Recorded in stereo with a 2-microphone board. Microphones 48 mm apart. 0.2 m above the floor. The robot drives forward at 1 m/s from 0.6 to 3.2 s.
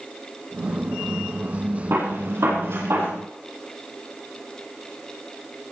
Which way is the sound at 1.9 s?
55° right (ahead or behind).